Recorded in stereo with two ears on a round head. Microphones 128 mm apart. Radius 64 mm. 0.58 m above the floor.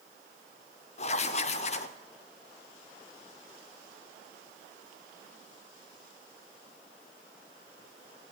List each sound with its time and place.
1.0 s writing: 45° left (ahead or behind), 0.7 m